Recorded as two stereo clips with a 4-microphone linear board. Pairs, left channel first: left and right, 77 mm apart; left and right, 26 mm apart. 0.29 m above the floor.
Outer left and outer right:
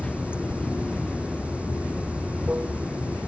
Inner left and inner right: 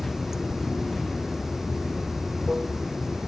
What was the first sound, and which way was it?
Running water, 15° right (ahead or behind).